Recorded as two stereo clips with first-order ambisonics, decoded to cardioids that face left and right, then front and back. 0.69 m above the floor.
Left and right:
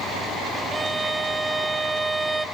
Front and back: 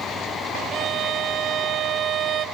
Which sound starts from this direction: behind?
A violin, at 0.7 s.